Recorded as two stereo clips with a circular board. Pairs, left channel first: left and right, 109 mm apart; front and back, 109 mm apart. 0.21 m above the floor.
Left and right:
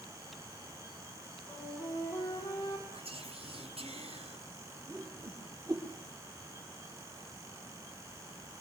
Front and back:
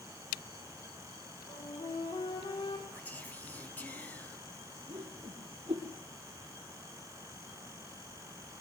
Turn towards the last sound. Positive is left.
turn(degrees=-145)